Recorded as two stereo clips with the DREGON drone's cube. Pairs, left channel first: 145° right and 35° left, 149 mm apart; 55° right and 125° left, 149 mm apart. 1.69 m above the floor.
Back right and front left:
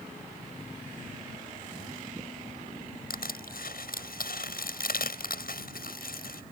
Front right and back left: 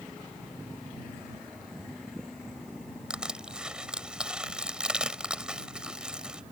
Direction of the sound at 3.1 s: 150° right.